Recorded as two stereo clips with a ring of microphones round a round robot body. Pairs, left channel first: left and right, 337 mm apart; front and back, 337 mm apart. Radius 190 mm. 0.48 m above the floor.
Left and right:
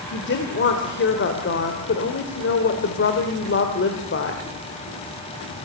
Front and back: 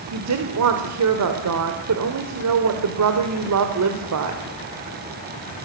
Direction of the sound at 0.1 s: 145° left.